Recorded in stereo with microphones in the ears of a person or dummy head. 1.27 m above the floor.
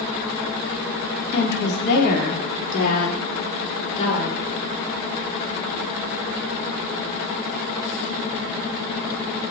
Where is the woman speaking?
60° left (ahead or behind), 3 m; by 4.5 s 35° left (ahead or behind), 5 m.